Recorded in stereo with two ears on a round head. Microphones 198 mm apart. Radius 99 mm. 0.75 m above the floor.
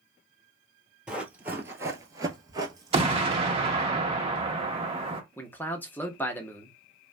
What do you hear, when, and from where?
1.1 s running footsteps: 5° right (ahead or behind), 0.9 m; by 3.9 s 15° right (ahead or behind), 1.5 m
2.9 s an explosion: 25° right (ahead or behind), 0.8 m
5.4 s a man speaking: 10° left (ahead or behind), 0.6 m